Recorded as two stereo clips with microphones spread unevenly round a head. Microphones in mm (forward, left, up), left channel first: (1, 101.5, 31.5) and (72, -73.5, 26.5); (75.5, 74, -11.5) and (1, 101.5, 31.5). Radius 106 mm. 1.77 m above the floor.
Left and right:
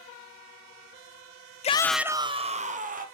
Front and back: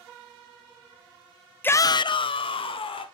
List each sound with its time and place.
1.6 s a shout: 55° left, 0.5 m; by 3.0 s 20° right, 1.6 m